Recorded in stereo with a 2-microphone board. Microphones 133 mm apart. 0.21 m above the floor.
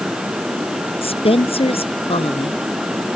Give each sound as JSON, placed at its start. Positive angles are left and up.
{"t": 1.0, "sound": "a woman speaking", "side_deg": 50}